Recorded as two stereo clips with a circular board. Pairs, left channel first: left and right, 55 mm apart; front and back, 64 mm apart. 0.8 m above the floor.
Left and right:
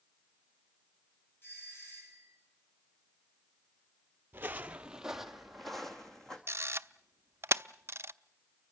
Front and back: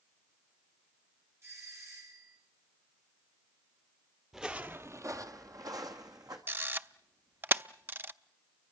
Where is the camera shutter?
125° right, 0.5 m.